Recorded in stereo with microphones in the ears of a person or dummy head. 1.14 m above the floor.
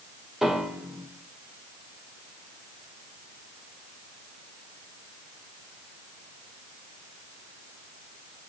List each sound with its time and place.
0.4 s a piano: centre (ahead or behind), 1.3 m